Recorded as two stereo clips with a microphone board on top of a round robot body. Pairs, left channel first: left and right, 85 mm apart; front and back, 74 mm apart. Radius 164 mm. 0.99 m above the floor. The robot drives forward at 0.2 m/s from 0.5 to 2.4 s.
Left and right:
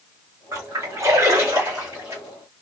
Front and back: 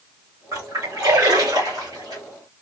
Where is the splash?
140° right, 1.4 m; by 2.2 s 150° right, 1.7 m.